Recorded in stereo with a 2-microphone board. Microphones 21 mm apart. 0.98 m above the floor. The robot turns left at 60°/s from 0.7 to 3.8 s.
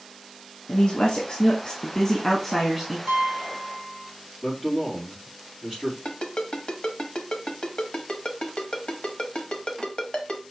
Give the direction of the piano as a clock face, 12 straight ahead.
4 o'clock.